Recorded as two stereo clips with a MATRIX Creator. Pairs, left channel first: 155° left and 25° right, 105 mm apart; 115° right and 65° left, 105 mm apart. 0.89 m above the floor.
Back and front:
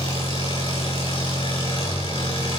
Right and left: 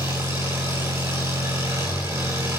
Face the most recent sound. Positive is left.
turn(degrees=125)